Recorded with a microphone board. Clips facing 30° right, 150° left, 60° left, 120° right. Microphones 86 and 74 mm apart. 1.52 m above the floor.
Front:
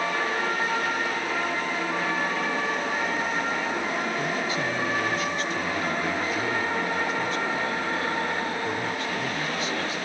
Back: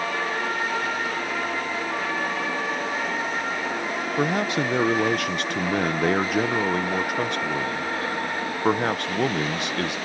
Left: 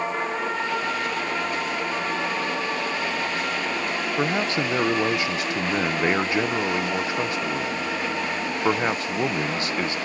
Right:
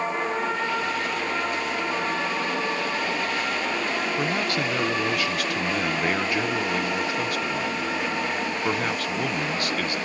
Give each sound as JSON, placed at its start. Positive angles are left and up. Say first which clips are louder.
{"t": 4.2, "sound": "a man speaking", "louder": "back 4 dB, left 2 dB", "azimuth_deg": 125}